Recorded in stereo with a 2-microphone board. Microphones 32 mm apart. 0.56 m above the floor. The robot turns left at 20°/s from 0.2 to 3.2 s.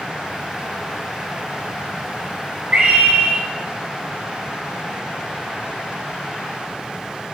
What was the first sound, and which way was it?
A scream, 55° right (ahead or behind).